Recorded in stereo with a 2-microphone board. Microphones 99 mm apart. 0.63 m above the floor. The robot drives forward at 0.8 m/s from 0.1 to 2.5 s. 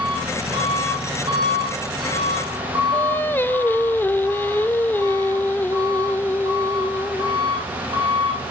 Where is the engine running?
70° right (ahead or behind), 10 m; by 8.5 s 60° right (ahead or behind), 10.5 m.